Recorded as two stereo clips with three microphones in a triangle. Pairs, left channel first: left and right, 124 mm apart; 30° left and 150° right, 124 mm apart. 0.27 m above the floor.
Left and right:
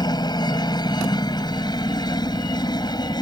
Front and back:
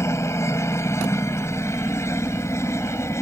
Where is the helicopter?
80° left.